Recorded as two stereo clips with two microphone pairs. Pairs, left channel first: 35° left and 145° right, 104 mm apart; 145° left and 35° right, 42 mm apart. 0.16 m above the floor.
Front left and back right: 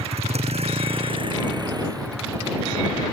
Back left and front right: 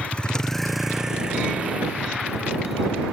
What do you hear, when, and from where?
0.0 s a vehicle: 155° right; by 3.1 s 80° right